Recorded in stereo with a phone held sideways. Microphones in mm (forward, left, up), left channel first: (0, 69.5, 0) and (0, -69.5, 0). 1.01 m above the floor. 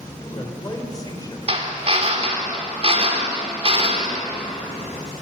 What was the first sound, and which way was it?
A man speaking, 25° left (ahead or behind).